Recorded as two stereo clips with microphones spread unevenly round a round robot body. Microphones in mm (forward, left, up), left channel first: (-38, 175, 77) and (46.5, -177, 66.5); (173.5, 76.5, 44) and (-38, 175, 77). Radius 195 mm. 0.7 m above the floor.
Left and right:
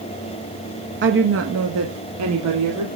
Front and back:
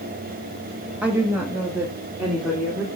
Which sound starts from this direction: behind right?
A woman speaking, at 1.0 s.